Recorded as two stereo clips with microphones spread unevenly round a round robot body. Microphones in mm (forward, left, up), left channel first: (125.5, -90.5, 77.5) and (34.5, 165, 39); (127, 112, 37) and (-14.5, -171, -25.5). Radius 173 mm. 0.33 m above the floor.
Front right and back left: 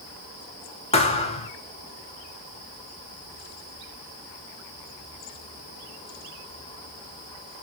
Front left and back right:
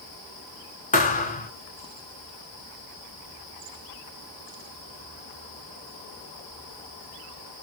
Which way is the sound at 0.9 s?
5° right.